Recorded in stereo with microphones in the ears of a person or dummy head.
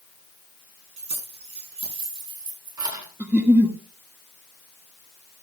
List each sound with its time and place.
1.0 s keys jangling: 40° right (ahead or behind), 9 m; by 3.1 s 20° right (ahead or behind), 8 m
3.2 s a giggle: 10° right (ahead or behind), 1.4 m